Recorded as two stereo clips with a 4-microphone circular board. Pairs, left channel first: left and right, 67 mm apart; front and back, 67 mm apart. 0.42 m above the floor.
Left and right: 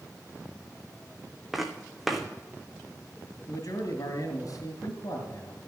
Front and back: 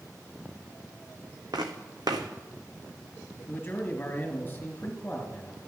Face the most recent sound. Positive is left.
turn(degrees=60)